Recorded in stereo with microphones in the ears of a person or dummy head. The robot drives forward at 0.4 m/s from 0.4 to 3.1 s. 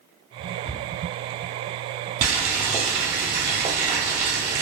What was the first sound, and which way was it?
A cupboard door, 65° left (ahead or behind).